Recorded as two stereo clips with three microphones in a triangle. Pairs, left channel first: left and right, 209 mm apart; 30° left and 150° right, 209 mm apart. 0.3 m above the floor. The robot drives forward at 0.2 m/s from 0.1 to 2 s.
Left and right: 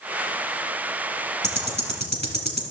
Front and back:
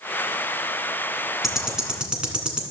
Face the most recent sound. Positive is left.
turn(degrees=125)